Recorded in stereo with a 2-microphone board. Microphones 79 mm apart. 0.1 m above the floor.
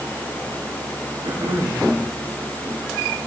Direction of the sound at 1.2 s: 65° right (ahead or behind).